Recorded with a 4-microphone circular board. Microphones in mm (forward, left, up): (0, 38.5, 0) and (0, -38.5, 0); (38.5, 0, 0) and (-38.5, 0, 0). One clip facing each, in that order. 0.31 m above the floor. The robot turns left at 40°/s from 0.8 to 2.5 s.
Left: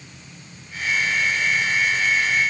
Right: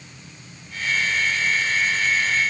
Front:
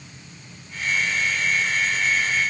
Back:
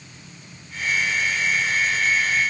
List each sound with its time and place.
Only background noise.